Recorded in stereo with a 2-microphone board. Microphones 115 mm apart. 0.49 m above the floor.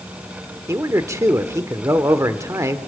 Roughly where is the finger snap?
No finger snap in this recording.